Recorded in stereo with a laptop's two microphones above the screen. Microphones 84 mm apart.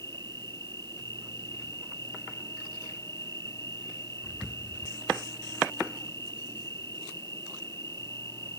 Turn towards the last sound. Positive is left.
turn(degrees=40)  # may be behind; listen again after turning